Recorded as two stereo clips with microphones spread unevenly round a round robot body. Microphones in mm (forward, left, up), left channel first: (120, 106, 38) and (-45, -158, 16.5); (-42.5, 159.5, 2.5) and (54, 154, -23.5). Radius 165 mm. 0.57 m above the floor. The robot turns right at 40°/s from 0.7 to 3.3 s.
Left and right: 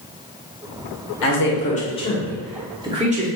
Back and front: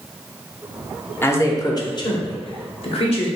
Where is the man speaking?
100° left, 0.9 m; by 3.3 s 175° right, 0.9 m.